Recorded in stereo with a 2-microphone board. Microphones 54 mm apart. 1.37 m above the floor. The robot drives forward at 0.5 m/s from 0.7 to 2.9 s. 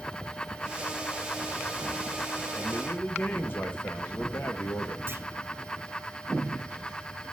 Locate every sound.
2.6 s a man speaking: 45° left (ahead or behind), 1.4 m; by 5.0 s 40° left (ahead or behind), 1.5 m
5.1 s a clunk: 40° right (ahead or behind), 1.5 m